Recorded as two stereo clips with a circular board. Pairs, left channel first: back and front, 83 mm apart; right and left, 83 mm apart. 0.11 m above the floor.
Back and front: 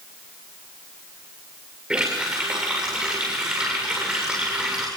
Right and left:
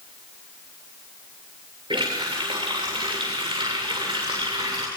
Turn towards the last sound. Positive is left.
turn(degrees=75)